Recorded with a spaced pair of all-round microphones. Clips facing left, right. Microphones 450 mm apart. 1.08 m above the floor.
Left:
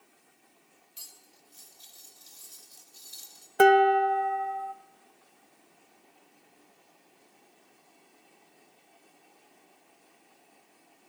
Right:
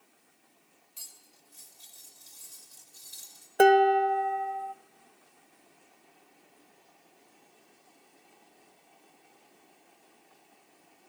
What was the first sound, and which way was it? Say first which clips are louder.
Cutlery clinking: left 3 dB; 65° right (ahead or behind).